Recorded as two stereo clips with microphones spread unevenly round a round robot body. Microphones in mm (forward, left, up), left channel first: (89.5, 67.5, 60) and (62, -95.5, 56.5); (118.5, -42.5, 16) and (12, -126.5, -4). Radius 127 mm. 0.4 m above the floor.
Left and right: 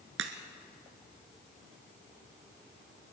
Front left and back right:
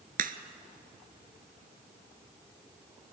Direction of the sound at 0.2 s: 125° right.